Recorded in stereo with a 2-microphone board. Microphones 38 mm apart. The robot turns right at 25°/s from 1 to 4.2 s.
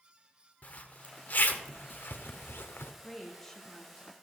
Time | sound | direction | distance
0.6 | a zipper | 45° left (ahead or behind) | 0.8 m
3.0 | a woman speaking | centre (ahead or behind) | 1.4 m